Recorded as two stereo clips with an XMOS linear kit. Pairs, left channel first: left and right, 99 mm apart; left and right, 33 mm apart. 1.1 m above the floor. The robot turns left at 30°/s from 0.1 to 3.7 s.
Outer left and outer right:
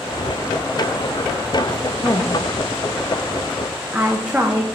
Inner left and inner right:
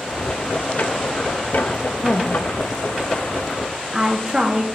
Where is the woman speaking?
35° left (ahead or behind), 0.6 m; by 4.7 s 10° right (ahead or behind), 0.6 m.